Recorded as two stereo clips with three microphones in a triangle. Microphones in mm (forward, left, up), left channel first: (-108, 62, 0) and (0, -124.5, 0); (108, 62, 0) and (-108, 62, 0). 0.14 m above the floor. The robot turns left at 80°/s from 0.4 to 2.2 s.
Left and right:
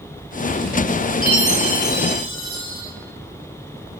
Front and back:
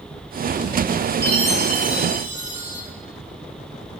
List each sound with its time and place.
1.2 s a chime: 70° right, 2 m; by 2.8 s 150° right, 2 m